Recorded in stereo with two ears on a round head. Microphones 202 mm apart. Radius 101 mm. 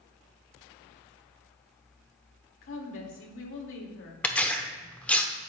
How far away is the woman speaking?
About 2 m.